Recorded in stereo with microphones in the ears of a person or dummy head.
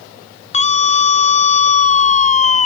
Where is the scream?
35° left (ahead or behind); by 2.7 s 40° left (ahead or behind).